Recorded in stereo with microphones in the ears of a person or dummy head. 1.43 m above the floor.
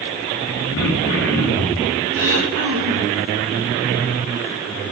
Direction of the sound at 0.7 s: 70° left (ahead or behind).